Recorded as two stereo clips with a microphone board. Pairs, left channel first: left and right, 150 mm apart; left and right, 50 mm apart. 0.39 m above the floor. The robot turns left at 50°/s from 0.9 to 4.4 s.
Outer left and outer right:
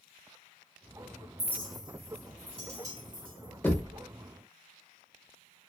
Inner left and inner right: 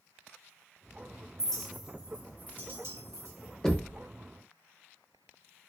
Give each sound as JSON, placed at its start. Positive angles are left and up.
{"t": 1.4, "sound": "a clink", "side_deg": 15, "distance_m": 1.0}
{"t": 3.6, "sound": "knocking", "side_deg": 15, "distance_m": 0.6}